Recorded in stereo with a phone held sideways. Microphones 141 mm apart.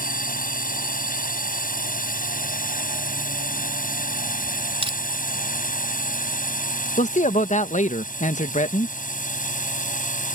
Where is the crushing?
40° right (ahead or behind).